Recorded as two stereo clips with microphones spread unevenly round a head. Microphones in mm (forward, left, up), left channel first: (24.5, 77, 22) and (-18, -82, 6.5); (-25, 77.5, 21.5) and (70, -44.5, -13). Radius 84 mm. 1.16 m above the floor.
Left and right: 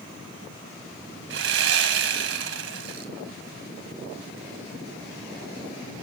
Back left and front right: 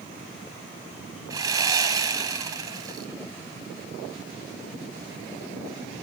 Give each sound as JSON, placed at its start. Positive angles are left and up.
{"t": 1.3, "sound": "sawing", "azimuth_deg": -130, "distance_m": 2.0}